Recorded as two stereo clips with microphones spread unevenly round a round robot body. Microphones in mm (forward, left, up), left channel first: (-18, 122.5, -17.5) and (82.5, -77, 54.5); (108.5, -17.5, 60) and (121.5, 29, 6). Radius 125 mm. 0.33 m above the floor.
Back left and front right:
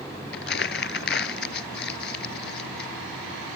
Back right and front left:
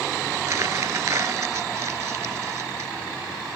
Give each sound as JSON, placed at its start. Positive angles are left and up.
{"t": 0.3, "sound": "crumpling", "azimuth_deg": 75}